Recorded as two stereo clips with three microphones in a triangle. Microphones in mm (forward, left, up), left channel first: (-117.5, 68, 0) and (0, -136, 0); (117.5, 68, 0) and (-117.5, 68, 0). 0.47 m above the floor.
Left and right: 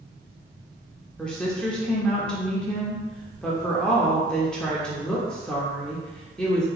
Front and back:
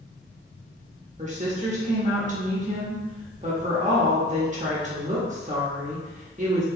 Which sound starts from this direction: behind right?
A woman speaking, at 1.2 s.